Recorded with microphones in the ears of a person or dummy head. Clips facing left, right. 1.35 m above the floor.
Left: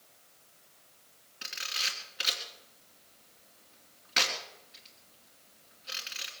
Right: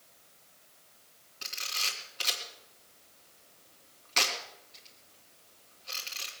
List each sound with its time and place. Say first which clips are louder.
1.4 s a camera shutter: right 1 dB; 15° left (ahead or behind), 3 m